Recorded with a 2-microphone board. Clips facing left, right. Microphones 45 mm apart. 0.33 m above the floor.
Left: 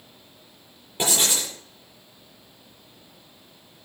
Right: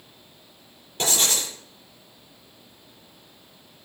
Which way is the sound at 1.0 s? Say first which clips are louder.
Left 1 dB; 25° left (ahead or behind).